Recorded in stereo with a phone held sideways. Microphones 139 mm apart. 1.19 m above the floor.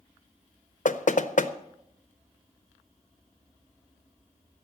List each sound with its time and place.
0.8 s knocking: 65° left (ahead or behind), 0.7 m